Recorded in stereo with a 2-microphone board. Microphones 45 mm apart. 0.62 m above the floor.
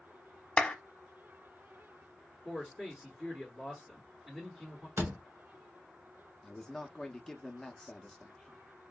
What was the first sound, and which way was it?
A clap, 25° left (ahead or behind).